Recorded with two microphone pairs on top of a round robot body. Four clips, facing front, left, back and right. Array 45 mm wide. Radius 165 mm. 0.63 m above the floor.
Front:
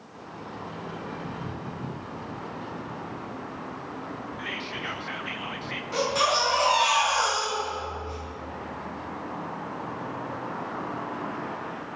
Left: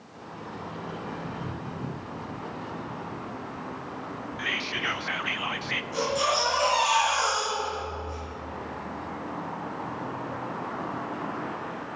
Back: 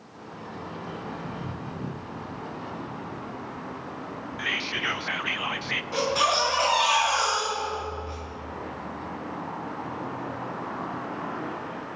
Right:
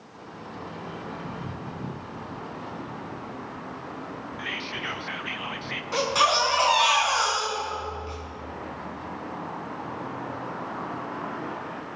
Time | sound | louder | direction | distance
4.4 | whispering | left 4 dB, back 7 dB | 160° left | 0.6 m
5.9 | a baby crying | right 5 dB, even | 90° right | 4.5 m